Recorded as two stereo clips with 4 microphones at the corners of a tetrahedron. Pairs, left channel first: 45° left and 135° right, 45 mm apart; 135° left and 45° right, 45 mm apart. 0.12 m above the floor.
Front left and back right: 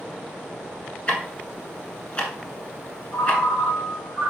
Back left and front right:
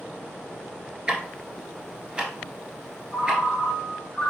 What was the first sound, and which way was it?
Ticking, 10° left.